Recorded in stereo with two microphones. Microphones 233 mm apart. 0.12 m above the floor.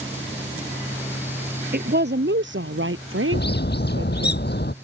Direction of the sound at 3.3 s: 50° left (ahead or behind).